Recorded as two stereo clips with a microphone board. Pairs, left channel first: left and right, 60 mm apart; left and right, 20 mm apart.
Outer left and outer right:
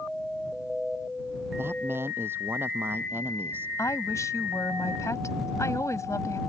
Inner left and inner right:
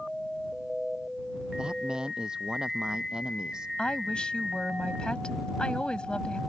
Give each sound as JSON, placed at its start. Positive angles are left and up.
{"t": 1.6, "sound": "a man speaking", "side_deg": -40}
{"t": 3.8, "sound": "a woman speaking", "side_deg": 60}